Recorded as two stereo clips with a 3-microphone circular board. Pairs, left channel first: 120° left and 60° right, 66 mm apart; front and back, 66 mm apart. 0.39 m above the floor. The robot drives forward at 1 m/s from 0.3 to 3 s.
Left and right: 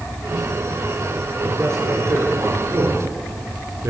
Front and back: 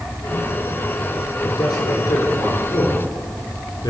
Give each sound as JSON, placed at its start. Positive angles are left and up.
{"t": 1.4, "sound": "a man speaking", "azimuth_deg": -10, "distance_m": 8.0}